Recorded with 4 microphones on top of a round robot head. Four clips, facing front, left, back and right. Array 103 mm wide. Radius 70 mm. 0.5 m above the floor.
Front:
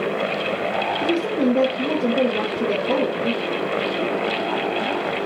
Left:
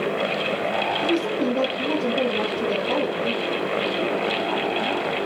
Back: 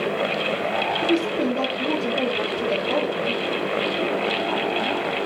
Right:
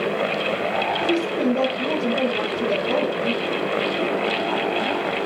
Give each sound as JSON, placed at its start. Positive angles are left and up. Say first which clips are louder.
{"t": 1.0, "sound": "a woman speaking", "louder": "right 1 dB, front 2 dB", "azimuth_deg": -15, "distance_m": 8.5}